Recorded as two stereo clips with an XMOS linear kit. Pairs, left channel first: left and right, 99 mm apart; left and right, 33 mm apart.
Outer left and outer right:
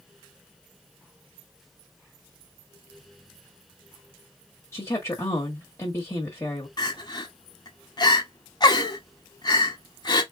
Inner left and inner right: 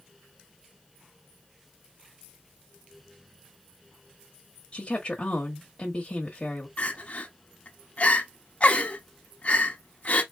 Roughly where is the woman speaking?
Left.